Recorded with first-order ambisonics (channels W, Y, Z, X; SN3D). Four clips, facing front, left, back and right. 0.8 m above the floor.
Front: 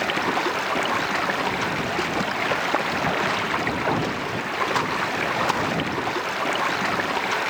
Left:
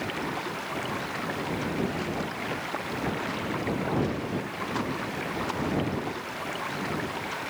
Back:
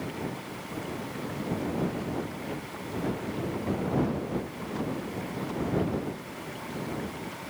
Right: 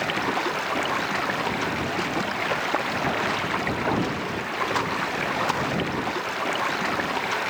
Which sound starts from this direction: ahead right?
Running water, at 0.0 s.